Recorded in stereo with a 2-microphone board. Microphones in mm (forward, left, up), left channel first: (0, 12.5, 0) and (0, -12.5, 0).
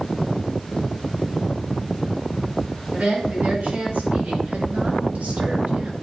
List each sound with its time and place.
2.9 s a woman speaking: 80° right, 5 m; by 5.9 s 75° right (ahead or behind), 2.5 m